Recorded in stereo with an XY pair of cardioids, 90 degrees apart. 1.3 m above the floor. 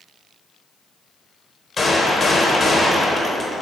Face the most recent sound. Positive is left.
turn(degrees=45)